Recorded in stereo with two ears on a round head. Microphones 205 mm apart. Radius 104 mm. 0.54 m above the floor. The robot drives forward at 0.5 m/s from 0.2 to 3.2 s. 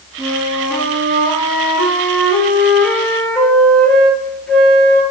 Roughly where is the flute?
Centre.